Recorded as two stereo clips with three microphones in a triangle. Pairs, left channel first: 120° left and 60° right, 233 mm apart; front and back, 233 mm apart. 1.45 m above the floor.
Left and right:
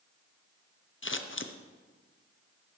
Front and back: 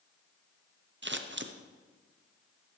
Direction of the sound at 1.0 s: 150° left.